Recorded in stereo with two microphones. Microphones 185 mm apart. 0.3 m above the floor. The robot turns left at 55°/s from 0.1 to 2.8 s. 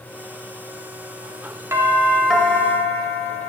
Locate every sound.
1.7 s a doorbell: 15° right (ahead or behind), 1.5 m; by 3.5 s 10° left (ahead or behind), 1.5 m